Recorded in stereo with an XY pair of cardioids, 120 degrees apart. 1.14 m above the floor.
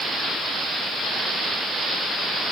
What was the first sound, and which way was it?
Only background noise.